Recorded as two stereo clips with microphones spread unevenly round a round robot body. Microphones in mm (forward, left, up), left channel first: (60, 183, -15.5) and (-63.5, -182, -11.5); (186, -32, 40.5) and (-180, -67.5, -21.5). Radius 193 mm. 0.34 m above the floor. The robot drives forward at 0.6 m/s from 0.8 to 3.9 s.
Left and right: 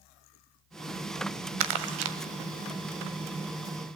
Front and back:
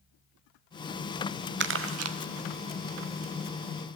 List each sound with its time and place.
1.6 s crumpling: 125° right, 1.0 m; by 2.2 s 140° right, 1.2 m